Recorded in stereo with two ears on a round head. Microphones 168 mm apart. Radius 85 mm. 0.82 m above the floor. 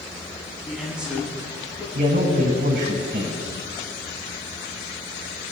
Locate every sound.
0.6 s a man speaking: 5° right (ahead or behind), 7 m
1.9 s a man speaking: 45° right (ahead or behind), 6 m